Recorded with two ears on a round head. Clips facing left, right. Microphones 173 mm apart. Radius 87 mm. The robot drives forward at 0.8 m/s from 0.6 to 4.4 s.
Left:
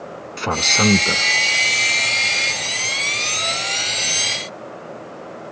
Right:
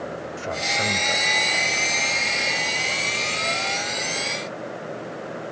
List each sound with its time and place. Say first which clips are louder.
0.4 s a man speaking: left 8 dB; 85° left